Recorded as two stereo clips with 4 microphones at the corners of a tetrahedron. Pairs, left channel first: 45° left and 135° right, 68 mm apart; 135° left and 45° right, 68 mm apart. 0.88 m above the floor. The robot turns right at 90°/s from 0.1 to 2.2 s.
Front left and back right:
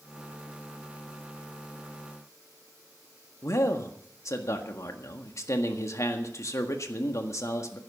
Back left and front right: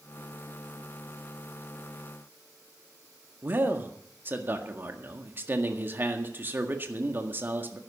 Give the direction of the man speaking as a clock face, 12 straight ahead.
12 o'clock.